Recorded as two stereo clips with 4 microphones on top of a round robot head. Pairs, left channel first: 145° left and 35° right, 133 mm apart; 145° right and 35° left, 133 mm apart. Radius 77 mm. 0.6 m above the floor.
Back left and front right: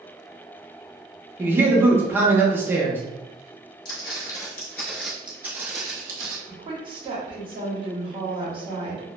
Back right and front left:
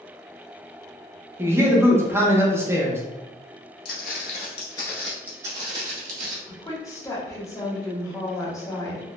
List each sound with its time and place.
1.4 s a man speaking: 5° left, 0.6 m
3.9 s footsteps: 160° right, 0.9 m; by 6.4 s 20° left, 0.9 m
6.5 s a woman speaking: 80° right, 1.0 m